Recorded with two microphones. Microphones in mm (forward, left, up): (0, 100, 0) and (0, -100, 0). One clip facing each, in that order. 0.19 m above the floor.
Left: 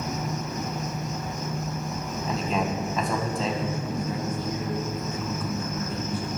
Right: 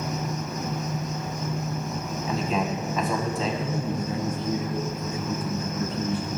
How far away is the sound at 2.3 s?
About 1.5 m.